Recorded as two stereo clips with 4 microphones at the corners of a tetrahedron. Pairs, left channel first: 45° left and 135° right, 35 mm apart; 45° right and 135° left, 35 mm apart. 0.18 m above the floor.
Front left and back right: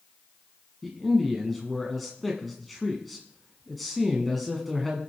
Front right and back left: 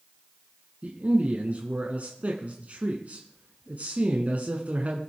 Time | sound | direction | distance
0.8 | a man speaking | 130° left | 1.4 m